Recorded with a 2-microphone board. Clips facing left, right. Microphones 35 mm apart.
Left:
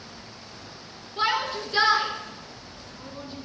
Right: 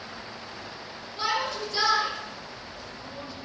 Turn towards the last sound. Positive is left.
turn(degrees=30)  # may be behind; listen again after turning